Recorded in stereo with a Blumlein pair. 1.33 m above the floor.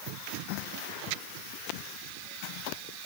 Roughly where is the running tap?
No running tap in this recording.